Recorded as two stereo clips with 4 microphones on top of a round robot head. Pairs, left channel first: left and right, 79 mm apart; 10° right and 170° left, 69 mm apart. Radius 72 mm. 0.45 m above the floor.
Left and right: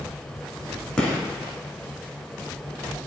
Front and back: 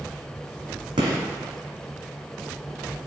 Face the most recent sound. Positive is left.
turn(degrees=170)